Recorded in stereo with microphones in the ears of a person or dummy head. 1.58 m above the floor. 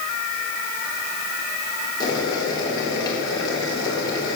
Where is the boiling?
25° left (ahead or behind), 4 m.